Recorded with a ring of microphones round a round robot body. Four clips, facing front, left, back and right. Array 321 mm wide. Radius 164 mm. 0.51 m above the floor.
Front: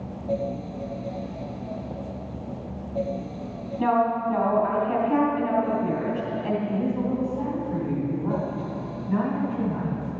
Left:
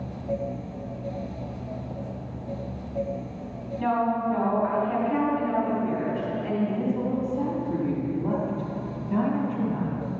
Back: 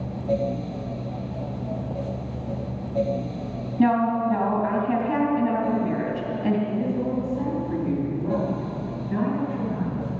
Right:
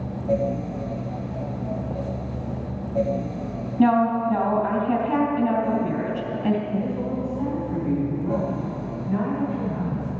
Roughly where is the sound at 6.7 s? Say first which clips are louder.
Even, even; behind left.